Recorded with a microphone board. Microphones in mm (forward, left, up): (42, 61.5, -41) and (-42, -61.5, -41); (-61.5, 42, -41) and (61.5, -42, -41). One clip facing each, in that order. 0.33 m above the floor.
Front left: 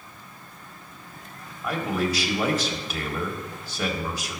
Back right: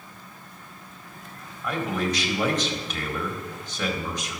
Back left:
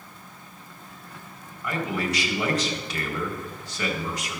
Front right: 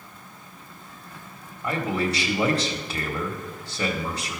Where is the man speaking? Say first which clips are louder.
Front left 1 dB, front right 2 dB; 20° right, 1.5 m.